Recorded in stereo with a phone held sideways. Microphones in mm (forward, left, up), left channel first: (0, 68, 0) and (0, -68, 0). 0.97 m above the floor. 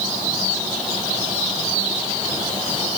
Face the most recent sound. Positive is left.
No sound to turn to.